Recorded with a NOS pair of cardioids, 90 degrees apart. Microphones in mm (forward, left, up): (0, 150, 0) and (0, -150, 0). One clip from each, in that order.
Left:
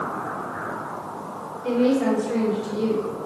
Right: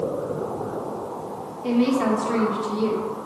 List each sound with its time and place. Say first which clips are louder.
1.6 s a woman speaking: left 1 dB; 60° right, 2.5 m